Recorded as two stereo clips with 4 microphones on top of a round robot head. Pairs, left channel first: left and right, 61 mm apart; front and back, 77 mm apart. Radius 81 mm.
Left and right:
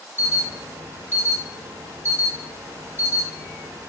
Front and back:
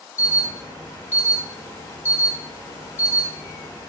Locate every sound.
0.2 s an alarm: 55° right, 1.1 m